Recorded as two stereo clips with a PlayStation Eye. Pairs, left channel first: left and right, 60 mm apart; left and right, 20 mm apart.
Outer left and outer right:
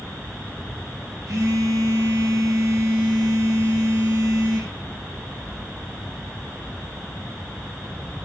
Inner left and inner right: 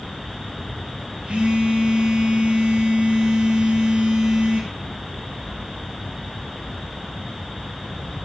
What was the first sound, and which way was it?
A phone buzzing, 80° right.